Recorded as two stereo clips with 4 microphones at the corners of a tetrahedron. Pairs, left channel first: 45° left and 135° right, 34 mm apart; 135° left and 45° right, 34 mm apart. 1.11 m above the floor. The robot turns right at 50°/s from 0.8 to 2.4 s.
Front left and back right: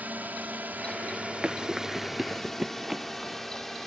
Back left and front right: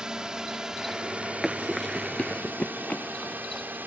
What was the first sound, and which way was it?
A drone, 110° right.